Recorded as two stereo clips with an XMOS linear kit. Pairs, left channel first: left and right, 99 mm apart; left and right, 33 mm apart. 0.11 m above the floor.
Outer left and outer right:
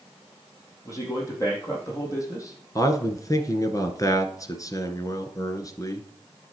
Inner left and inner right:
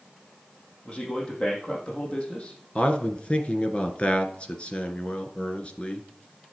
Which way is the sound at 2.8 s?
35° left (ahead or behind).